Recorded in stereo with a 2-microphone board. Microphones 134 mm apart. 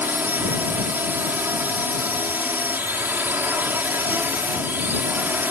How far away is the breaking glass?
I don't hear breaking glass.